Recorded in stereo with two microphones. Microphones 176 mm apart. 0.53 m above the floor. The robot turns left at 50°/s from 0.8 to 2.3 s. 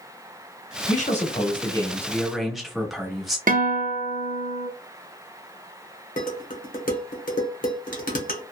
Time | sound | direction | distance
0.9 | a man speaking | 70° left | 1.0 m
3.5 | a guitar | 50° right (ahead or behind) | 0.6 m
6.2 | dishes clattering | 50° left (ahead or behind) | 0.9 m